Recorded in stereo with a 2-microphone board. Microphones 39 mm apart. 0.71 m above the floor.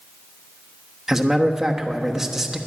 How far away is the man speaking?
About 1.2 m.